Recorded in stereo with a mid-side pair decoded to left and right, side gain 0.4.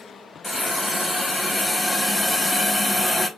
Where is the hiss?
30° left, 3 m.